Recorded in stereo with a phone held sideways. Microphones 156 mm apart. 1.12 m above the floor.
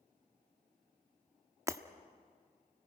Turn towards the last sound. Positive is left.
turn(degrees=-20)  # may be behind; listen again after turning